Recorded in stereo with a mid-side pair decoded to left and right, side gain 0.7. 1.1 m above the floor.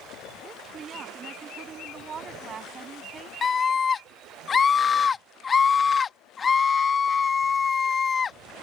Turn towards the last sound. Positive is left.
turn(degrees=25)